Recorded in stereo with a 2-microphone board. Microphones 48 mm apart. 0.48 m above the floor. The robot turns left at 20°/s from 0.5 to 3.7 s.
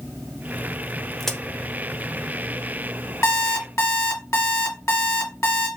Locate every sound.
1.2 s a crack: 5° left (ahead or behind), 0.9 m; by 1.4 s 10° left (ahead or behind), 0.9 m
3.2 s an alarm clock: 80° left, 1.9 m